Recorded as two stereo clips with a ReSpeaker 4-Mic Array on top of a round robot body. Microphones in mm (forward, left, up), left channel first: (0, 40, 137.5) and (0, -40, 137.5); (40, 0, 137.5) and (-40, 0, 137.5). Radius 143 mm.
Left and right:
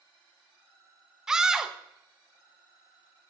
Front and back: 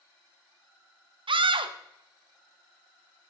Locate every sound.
1.3 s a scream: 175° right, 0.7 m